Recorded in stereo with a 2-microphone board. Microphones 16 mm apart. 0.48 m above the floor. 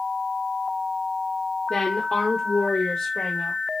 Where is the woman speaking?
35° left (ahead or behind), 0.8 m; by 3.6 s 65° left (ahead or behind), 1.6 m.